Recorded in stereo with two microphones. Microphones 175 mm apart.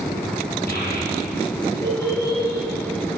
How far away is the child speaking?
About 5 m.